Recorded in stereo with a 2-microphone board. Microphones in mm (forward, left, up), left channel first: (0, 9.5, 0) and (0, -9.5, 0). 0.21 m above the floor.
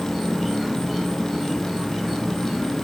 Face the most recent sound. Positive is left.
turn(degrees=-5)  # may be behind; listen again after turning